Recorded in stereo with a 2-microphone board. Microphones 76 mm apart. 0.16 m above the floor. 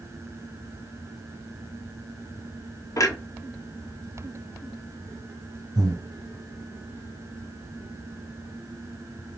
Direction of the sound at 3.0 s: 50° left (ahead or behind).